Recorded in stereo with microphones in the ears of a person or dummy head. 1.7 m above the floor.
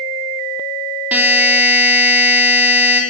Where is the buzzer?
5° right (ahead or behind), 3 m.